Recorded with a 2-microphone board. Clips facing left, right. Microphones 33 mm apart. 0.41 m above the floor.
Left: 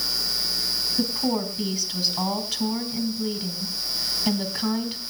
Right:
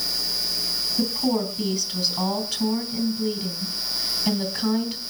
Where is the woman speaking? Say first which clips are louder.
Right 3 dB; 10° left (ahead or behind), 2.5 m.